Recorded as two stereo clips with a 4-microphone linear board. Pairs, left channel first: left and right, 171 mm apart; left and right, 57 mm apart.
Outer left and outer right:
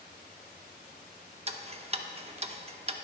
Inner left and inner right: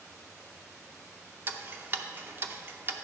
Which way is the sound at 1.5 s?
40° right (ahead or behind).